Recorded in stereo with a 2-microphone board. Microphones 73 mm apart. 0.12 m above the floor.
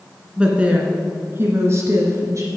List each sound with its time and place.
0.4 s a woman speaking: 15° right (ahead or behind), 1.7 m; by 2.5 s 45° right (ahead or behind), 2 m